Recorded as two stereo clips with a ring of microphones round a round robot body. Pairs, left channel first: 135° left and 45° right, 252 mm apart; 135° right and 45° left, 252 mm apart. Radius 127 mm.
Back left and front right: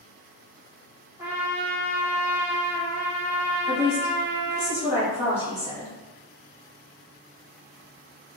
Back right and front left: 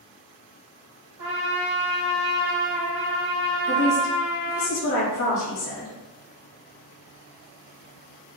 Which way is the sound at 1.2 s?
35° left.